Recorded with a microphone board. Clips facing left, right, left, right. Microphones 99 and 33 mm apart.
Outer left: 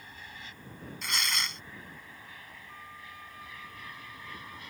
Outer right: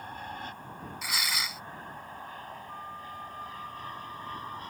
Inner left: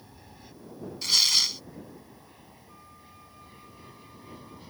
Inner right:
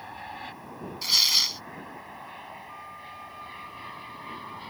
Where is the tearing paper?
5° right (ahead or behind).